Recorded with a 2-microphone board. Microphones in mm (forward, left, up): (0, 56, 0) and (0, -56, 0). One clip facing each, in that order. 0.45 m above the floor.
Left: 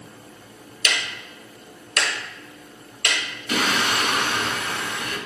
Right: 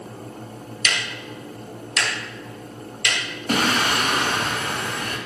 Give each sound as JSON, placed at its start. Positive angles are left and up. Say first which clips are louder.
{"t": 0.8, "sound": "ticking", "louder": "even", "side_deg": 50, "distance_m": 2.0}
{"t": 3.5, "sound": "singing", "louder": "right 2 dB", "side_deg": -50, "distance_m": 1.4}